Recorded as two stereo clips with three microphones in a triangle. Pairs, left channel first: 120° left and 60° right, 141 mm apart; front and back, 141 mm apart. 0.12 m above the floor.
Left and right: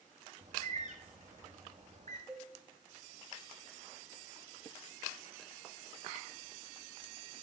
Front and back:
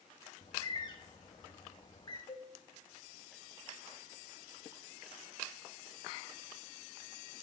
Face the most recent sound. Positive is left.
turn(degrees=30)